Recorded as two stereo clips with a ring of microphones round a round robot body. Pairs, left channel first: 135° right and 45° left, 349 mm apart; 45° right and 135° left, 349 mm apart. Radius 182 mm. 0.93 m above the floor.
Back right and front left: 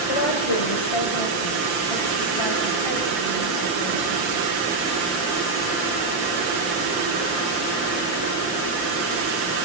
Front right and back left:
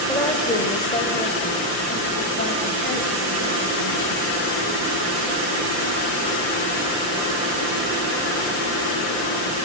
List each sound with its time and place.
0.1 s a woman speaking: 125° right, 4 m; by 4.2 s 100° right, 7.5 m